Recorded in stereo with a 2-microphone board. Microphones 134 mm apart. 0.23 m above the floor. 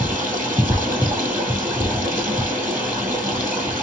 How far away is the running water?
About 2.0 m.